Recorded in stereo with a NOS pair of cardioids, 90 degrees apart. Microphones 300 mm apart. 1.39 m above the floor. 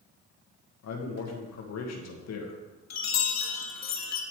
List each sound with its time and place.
0.8 s a man speaking: 60° left, 2.0 m
2.9 s a chime: 60° left, 1.9 m